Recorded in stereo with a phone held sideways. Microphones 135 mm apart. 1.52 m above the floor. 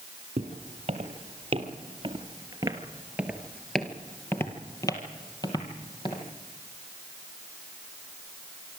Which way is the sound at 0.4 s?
50° right (ahead or behind).